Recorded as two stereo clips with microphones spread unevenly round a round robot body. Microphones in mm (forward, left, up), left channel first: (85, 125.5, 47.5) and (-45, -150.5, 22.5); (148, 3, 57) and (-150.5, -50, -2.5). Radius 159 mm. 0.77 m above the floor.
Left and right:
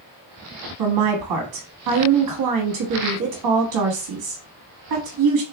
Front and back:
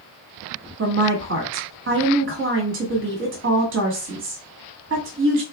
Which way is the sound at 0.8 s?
130° right.